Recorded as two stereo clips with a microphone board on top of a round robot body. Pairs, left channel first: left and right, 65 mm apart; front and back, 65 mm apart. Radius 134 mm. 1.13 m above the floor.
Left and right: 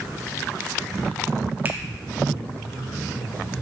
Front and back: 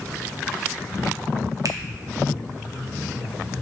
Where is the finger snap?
150° right, 1.0 m.